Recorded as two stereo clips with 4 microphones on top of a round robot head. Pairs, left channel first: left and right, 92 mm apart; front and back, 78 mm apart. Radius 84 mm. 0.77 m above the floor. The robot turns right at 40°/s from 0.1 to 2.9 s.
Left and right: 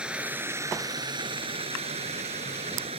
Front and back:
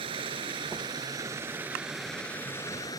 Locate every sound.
0.0 s running water: 170° right; by 3.0 s 60° right